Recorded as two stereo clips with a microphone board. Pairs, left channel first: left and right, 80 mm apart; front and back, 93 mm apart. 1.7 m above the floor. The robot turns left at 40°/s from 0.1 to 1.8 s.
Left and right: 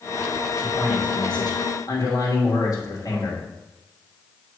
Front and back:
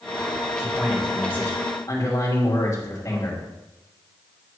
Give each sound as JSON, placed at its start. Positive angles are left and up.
{"t": 0.6, "sound": "a man speaking", "azimuth_deg": 100, "distance_m": 2.5}